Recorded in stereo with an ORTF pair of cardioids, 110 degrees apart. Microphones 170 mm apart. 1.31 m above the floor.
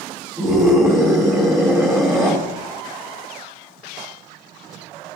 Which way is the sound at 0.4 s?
20° right.